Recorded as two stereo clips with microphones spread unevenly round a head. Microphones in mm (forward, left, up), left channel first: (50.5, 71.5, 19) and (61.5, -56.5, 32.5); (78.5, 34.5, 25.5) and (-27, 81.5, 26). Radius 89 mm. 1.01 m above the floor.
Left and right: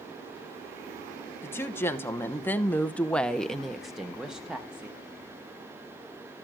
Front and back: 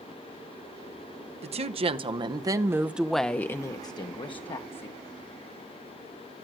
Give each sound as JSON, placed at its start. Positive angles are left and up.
{"t": 1.4, "sound": "a woman speaking", "azimuth_deg": 165, "distance_m": 1.0}